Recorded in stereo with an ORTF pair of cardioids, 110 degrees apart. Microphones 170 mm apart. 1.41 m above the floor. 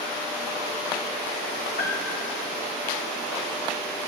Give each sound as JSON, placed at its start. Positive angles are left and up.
{"t": 1.8, "sound": "a piano", "azimuth_deg": 55, "distance_m": 4.5}